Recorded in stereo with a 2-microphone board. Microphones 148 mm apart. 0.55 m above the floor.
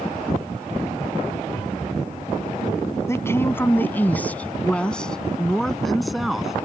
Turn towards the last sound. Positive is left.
turn(degrees=-5)  # may be behind; listen again after turning